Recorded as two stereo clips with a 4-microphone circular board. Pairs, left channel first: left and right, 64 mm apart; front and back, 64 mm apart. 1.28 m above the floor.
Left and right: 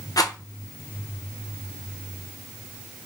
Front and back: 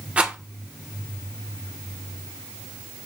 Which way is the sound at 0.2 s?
110° left.